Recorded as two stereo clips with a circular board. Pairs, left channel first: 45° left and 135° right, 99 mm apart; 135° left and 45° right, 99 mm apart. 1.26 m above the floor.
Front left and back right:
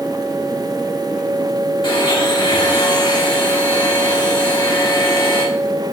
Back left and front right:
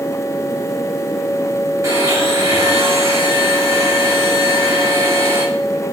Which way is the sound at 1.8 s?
10° left.